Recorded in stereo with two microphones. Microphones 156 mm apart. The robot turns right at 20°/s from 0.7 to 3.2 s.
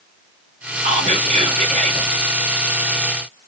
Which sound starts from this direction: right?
Whispering, at 0.8 s.